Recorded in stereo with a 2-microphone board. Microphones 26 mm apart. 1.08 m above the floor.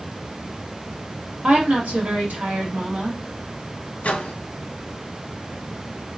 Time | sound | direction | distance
1.4 | a woman speaking | 80° right | 1.8 m
4.0 | a microwave | 60° left (ahead or behind) | 0.8 m